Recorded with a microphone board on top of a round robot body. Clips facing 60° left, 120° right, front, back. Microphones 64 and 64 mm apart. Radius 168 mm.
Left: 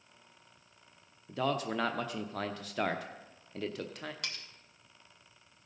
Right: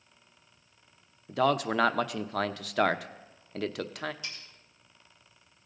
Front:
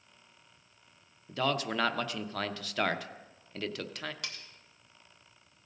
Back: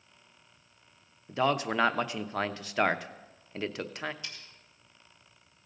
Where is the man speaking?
115° right, 0.8 m.